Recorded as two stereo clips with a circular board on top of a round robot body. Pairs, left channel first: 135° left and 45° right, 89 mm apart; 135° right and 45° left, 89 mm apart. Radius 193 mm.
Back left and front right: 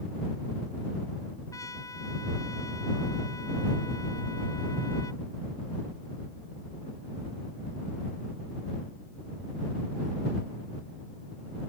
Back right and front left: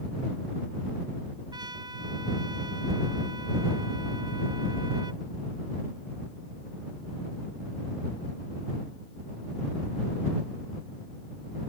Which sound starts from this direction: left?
A trumpet, at 1.5 s.